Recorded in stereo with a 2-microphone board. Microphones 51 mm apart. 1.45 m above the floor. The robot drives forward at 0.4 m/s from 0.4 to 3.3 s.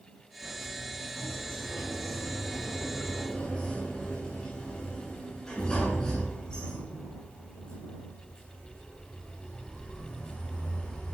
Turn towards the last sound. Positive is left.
turn(degrees=20)  # may be behind; listen again after turning